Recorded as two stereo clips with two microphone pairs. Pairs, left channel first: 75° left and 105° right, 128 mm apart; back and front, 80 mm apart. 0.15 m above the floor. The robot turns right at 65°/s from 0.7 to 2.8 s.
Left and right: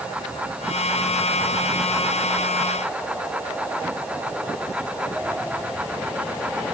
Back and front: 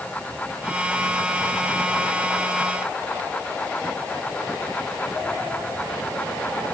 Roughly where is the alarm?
No alarm in this recording.